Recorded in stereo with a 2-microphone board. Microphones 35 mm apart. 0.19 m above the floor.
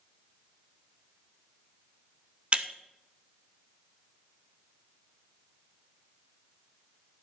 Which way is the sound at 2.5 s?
35° right (ahead or behind).